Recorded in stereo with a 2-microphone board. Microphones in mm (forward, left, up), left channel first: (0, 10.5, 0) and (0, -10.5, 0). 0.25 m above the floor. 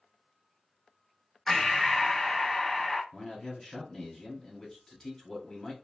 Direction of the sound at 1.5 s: 10° left (ahead or behind).